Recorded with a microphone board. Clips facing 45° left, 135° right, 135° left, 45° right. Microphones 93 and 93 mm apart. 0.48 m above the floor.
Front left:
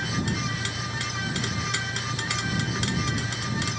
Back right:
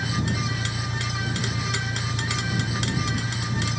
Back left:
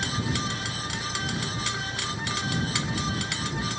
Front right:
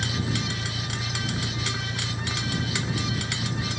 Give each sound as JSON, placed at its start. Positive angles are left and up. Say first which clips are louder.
{"t": 0.0, "sound": "an engine running", "louder": "back right 1 dB, even", "azimuth_deg": -95}